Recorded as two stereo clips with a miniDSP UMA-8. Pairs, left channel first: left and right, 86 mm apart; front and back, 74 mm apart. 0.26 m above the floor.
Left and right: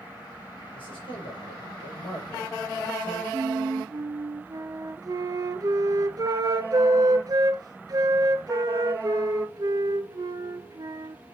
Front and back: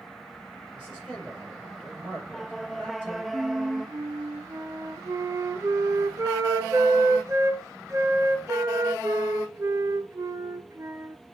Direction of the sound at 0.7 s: 100° left.